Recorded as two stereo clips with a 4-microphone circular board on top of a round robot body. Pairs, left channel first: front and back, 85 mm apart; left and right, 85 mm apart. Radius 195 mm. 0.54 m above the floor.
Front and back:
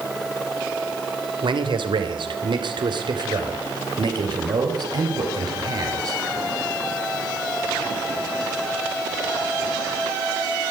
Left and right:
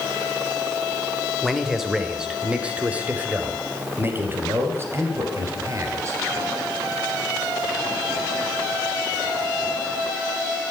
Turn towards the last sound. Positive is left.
turn(degrees=-140)